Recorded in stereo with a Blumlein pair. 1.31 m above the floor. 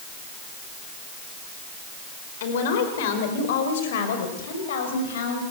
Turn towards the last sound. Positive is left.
turn(degrees=60)